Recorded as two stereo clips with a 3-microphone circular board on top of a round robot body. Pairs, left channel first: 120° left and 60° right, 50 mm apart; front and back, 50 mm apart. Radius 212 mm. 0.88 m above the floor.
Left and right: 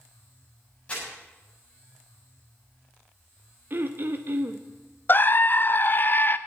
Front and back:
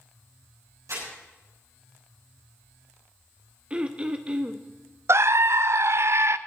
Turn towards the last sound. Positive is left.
turn(degrees=160)